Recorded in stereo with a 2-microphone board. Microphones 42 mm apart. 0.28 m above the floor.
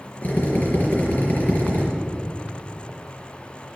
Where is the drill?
45° left (ahead or behind), 4 m.